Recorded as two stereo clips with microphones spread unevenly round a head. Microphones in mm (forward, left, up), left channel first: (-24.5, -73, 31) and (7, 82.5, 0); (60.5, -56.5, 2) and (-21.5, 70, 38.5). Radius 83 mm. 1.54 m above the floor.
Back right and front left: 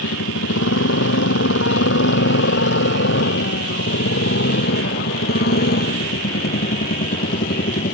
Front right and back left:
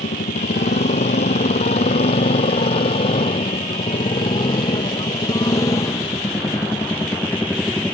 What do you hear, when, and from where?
0.0 s a motorcycle: 110° right; by 8.0 s 145° right